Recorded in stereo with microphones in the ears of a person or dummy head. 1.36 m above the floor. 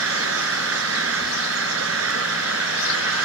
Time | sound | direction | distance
0.0 | an engine running | 85° right | ?